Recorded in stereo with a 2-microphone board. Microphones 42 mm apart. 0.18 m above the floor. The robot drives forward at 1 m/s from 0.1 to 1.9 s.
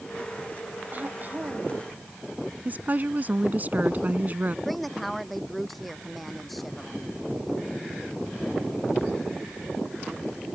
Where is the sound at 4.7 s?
Centre (ahead or behind).